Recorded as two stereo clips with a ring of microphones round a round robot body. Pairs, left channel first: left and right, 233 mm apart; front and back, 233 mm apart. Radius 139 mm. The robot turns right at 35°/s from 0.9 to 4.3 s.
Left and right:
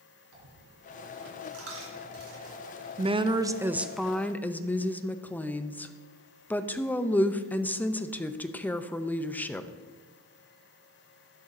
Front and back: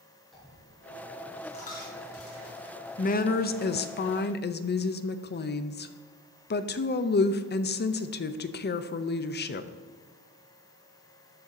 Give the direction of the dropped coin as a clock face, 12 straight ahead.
3 o'clock.